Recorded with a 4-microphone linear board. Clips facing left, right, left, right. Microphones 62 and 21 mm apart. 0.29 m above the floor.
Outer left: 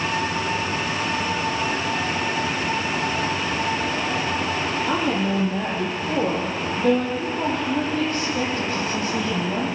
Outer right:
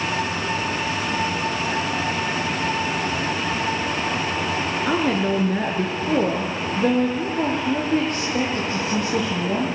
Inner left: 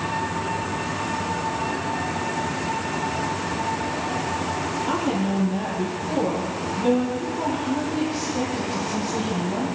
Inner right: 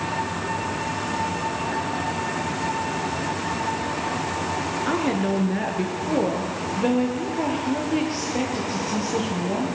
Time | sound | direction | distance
4.9 | a woman speaking | 75° right (ahead or behind) | 5 m